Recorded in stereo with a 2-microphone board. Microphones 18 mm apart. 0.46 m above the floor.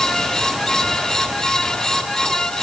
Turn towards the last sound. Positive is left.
No sound to turn to.